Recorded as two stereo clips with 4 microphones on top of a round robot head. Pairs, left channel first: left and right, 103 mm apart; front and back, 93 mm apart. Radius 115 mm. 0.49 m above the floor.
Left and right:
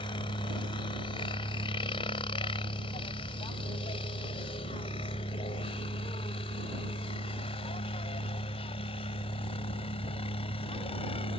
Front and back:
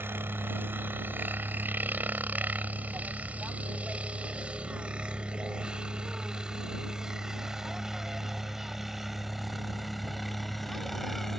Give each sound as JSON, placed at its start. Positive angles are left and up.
{"t": 0.0, "sound": "a helicopter", "azimuth_deg": 120}